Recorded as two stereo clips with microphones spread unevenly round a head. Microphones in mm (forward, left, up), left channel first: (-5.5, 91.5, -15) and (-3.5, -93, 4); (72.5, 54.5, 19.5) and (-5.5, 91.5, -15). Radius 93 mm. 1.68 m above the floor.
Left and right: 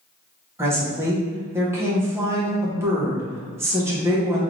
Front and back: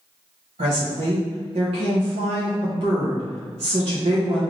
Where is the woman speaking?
160° right, 0.9 m.